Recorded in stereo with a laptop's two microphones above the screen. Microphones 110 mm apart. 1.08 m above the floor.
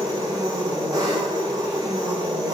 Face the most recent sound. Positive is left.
turn(degrees=-35)  # may be behind; listen again after turning